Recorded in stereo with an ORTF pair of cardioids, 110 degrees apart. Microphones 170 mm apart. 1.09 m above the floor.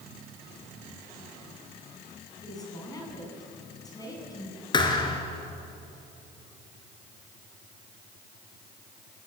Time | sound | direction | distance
2.4 | a woman speaking | 20° left | 8 m
4.7 | a thud | 25° left | 4 m